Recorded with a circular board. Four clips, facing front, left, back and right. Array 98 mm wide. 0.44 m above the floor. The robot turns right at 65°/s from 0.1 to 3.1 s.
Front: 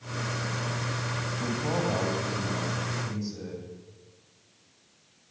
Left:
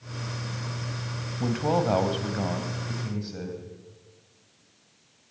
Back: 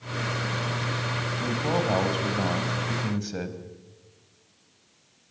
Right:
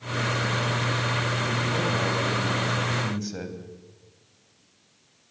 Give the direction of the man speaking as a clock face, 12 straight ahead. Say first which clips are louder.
Left 2 dB, back 3 dB; 9 o'clock.